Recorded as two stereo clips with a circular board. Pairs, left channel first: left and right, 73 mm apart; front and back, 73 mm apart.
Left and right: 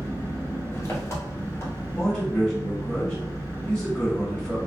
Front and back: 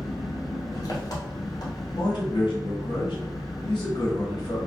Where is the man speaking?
5° left, 1.3 m.